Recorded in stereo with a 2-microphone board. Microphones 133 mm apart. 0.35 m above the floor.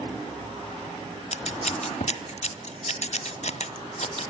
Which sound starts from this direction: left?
Scissors, at 1.3 s.